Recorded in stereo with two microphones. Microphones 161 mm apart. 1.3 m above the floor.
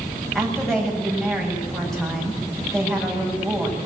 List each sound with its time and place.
0.3 s a woman speaking: centre (ahead or behind), 6.5 m